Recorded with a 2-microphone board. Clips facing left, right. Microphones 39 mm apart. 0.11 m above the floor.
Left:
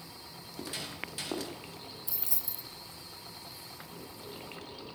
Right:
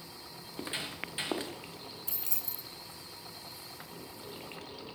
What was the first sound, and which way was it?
Footsteps, 30° right (ahead or behind).